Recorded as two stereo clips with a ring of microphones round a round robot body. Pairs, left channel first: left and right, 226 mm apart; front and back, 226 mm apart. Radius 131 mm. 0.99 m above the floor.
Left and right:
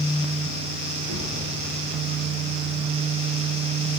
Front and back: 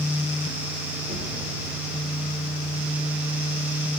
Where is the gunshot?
125° right, 7.5 m.